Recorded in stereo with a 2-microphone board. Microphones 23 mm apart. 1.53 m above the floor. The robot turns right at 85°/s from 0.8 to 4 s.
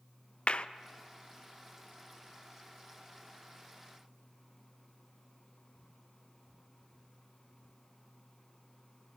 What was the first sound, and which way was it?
A clap, 50° left (ahead or behind).